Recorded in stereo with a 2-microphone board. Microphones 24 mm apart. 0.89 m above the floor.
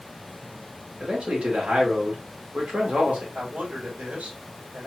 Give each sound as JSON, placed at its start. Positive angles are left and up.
{"t": 1.0, "sound": "a man speaking", "side_deg": -80, "distance_m": 2.5}
{"t": 3.3, "sound": "a man speaking", "side_deg": -85, "distance_m": 3.0}